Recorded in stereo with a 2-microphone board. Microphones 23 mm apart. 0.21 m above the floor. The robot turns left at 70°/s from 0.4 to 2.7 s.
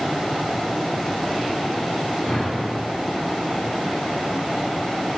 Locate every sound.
2.2 s a whoosh: 155° right, 1.7 m; by 2.7 s 170° left, 1.7 m